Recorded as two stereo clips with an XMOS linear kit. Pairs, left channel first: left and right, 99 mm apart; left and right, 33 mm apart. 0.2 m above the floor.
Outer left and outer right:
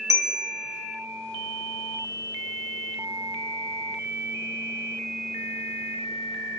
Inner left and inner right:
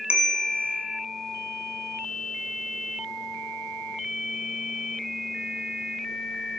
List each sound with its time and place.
0.1 s a bell: 35° right (ahead or behind), 0.6 m